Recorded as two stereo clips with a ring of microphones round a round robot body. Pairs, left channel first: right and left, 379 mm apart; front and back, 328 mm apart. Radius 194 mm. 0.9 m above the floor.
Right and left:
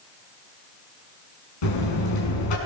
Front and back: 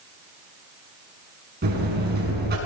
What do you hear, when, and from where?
1.6 s a buzzer: 115° right, 6.5 m